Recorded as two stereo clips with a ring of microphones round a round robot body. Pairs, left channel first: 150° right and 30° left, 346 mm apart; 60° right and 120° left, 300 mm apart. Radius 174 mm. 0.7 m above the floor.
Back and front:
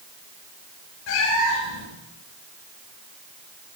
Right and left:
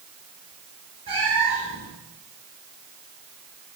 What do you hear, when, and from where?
1.1 s a cat meowing: 165° right, 5 m